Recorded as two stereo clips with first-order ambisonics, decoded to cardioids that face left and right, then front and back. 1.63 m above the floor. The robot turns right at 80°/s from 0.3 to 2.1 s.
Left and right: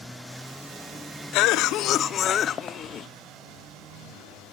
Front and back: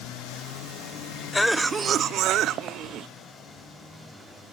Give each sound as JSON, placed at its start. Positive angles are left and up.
{"t": 1.3, "sound": "a cough", "azimuth_deg": 80, "distance_m": 0.6}